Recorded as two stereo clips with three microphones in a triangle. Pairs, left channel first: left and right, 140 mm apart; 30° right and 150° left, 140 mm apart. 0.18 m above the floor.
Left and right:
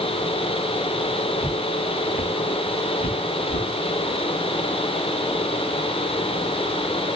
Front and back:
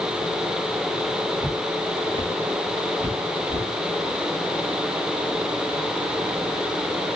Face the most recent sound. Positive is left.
turn(degrees=85)